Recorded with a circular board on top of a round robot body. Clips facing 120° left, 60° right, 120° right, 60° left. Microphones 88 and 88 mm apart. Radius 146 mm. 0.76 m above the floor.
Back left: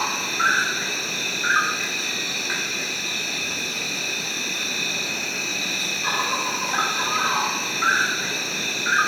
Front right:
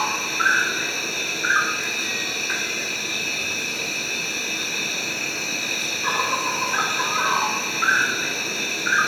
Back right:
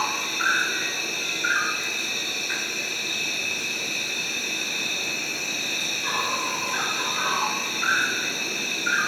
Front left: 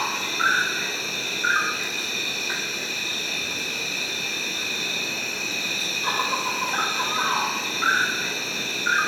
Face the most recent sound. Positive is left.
turn(degrees=30)